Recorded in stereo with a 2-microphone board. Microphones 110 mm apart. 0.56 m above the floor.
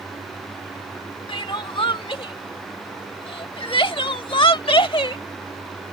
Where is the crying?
50° left (ahead or behind).